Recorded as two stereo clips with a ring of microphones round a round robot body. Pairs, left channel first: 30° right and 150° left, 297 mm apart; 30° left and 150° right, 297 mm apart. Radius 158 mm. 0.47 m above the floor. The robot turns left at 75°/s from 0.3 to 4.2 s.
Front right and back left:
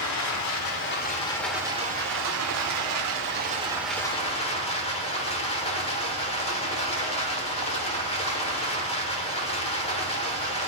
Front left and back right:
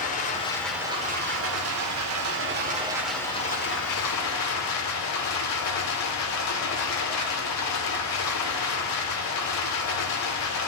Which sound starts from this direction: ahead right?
Running water, at 0.0 s.